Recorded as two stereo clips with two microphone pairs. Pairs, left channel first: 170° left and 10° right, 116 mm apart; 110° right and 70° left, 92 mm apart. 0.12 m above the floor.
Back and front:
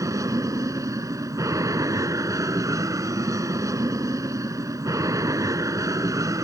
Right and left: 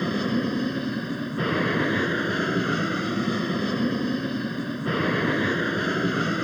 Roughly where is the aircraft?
Ahead right.